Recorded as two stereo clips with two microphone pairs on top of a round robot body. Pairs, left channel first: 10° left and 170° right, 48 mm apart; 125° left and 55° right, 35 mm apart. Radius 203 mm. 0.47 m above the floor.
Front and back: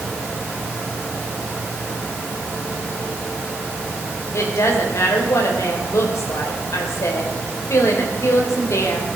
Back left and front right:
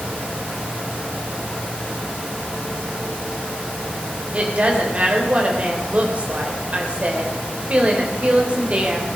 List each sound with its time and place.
4.3 s a woman speaking: 5° right, 3.5 m